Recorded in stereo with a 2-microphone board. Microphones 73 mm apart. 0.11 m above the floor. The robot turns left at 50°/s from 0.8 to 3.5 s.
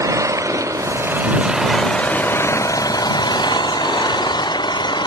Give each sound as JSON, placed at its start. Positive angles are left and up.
{"t": 0.0, "sound": "an engine running", "azimuth_deg": -135}